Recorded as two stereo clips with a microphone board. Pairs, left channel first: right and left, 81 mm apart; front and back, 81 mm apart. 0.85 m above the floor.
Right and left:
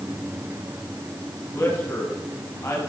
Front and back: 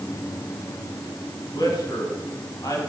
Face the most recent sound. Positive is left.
turn(degrees=-40)